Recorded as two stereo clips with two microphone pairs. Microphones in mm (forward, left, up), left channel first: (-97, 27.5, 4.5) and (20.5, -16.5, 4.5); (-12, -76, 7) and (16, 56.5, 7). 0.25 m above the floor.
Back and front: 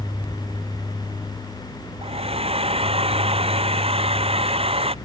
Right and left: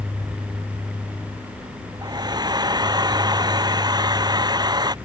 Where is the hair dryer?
20° left.